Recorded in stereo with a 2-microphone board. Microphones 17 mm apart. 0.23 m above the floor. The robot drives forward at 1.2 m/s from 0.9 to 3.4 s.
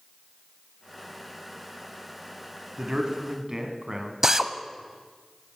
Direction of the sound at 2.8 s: 40° right (ahead or behind).